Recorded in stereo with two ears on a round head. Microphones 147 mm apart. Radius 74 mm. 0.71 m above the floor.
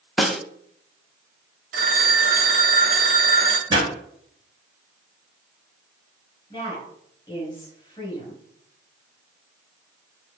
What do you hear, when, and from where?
0.2 s a snare drum: centre (ahead or behind), 0.6 m
1.7 s a phone ringing: 50° right (ahead or behind), 1.1 m
3.7 s a pop: 25° right (ahead or behind), 3.5 m
6.5 s a woman speaking: 15° left (ahead or behind), 5 m